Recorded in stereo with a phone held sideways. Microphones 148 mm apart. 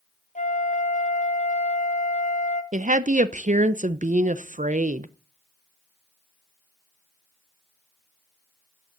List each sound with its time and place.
0.3 s a flute: 55° left (ahead or behind), 1.3 m
2.7 s a woman speaking: 60° right (ahead or behind), 0.6 m